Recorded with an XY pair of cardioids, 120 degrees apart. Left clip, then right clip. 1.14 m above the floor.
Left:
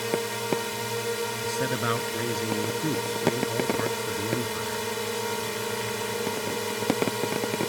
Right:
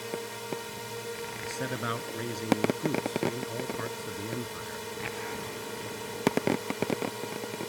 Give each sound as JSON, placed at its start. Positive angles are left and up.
{"t": 0.0, "sound": "a drone", "azimuth_deg": 45}
{"t": 1.4, "sound": "a man speaking", "azimuth_deg": 25}